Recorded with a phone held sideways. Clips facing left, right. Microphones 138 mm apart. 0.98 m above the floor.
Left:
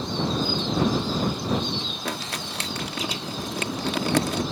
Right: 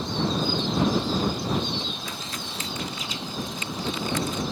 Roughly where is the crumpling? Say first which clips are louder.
Left 4 dB; left.